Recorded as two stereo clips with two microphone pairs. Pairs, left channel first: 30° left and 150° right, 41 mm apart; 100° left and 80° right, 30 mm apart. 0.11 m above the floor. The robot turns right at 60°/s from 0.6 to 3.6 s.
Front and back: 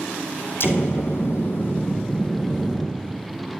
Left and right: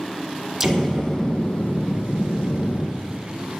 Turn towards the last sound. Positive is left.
turn(degrees=180)